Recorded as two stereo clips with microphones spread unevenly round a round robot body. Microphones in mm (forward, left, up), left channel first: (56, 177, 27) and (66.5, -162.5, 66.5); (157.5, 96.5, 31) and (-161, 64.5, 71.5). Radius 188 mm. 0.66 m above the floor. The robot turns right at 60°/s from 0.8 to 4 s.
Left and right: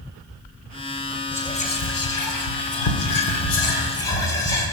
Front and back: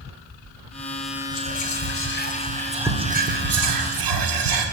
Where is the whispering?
10° left, 1.8 m; by 4.7 s 170° left, 1.8 m.